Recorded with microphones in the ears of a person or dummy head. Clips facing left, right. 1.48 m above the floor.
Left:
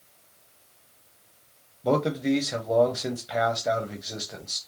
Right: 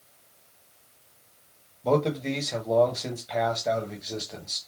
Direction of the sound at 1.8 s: 10° left (ahead or behind).